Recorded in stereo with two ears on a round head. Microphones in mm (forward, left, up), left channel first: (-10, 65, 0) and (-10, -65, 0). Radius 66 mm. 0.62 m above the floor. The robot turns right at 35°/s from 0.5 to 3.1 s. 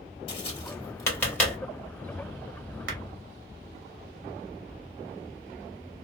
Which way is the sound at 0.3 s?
35° left (ahead or behind).